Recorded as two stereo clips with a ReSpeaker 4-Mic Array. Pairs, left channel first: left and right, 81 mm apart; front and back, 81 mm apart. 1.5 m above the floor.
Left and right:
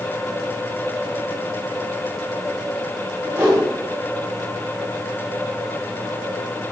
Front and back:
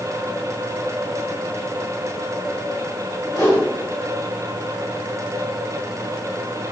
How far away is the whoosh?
About 0.8 m.